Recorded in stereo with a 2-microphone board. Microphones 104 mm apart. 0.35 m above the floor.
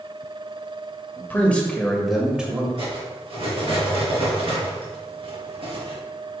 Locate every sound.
1.2 s a man speaking: 20° left (ahead or behind), 1.5 m; by 2.7 s 15° right (ahead or behind), 1.7 m
2.8 s cutlery clinking: 60° right (ahead or behind), 3 m